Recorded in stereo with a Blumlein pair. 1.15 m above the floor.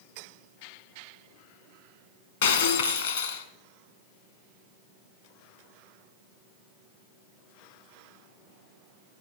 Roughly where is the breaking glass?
Ahead left.